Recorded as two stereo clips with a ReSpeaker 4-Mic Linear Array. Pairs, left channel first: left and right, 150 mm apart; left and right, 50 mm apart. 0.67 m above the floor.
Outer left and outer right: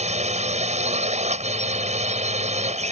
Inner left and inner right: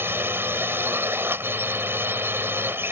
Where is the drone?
50° right (ahead or behind).